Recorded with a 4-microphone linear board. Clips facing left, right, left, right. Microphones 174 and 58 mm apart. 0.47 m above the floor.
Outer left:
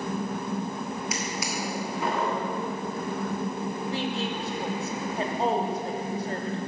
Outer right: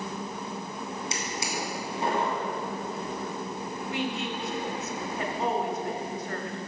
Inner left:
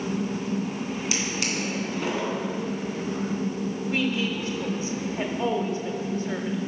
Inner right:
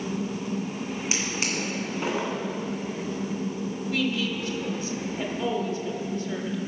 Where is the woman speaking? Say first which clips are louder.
Outer right 1 dB, even; 30° left (ahead or behind), 1.2 m.